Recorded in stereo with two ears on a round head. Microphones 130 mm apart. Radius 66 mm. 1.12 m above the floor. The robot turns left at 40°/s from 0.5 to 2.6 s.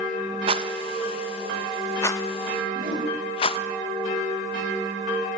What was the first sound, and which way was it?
A rattle, 40° right (ahead or behind).